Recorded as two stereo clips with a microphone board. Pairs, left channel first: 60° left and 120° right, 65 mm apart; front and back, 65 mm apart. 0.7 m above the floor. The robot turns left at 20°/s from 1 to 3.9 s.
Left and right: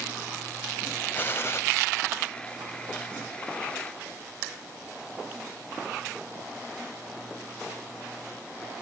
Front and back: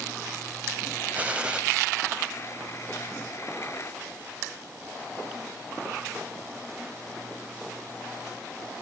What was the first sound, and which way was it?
A gunshot, 115° left.